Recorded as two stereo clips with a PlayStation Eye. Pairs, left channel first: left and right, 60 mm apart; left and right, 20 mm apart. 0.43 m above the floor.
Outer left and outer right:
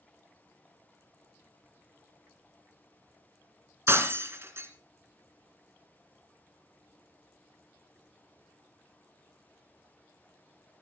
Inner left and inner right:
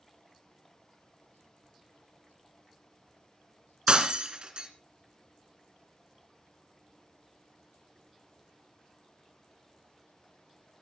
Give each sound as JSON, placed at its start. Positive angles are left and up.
{"t": 3.9, "sound": "breaking glass", "side_deg": -45, "distance_m": 2.5}